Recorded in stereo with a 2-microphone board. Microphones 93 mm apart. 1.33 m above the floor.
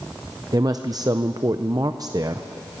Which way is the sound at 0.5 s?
45° right (ahead or behind).